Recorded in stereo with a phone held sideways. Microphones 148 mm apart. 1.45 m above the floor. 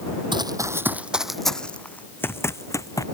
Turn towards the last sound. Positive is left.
turn(degrees=20)  # may be behind; listen again after turning